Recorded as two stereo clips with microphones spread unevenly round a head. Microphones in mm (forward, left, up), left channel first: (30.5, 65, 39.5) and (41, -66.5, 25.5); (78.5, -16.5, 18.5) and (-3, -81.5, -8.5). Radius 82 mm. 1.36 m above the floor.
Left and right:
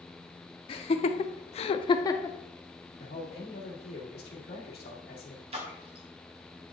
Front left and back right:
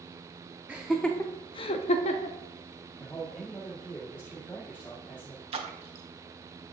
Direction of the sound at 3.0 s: 115° left.